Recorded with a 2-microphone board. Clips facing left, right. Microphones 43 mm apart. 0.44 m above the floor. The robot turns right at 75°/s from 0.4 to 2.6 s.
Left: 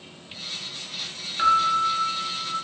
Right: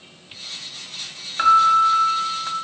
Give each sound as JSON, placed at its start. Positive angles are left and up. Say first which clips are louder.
{"t": 1.4, "sound": "a piano", "louder": "right 6 dB", "azimuth_deg": -150, "distance_m": 2.0}